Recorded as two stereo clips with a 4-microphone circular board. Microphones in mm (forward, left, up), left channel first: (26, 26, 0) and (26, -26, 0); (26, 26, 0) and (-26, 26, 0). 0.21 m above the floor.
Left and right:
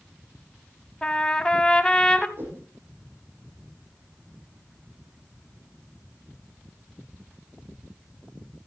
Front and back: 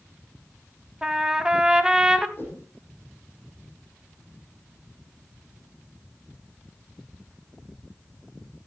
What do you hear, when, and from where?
1.0 s a trumpet: 130° left, 0.8 m
2.4 s a whoosh: 50° right, 5 m